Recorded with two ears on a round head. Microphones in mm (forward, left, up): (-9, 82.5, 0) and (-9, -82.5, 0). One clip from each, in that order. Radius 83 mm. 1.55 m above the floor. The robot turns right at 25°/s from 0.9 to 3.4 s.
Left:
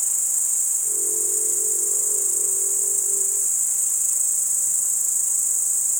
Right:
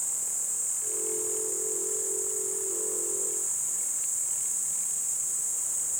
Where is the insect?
55° left, 0.8 m; by 6.0 s 120° left, 0.8 m.